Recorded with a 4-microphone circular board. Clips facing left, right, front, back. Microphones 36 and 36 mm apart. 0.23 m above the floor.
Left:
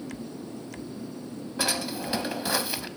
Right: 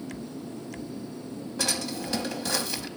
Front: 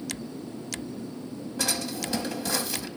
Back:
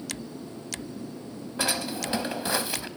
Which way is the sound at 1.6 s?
145° left.